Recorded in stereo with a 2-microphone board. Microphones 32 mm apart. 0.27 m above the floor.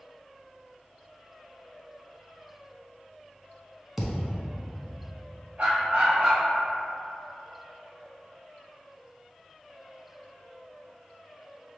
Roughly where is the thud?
Centre.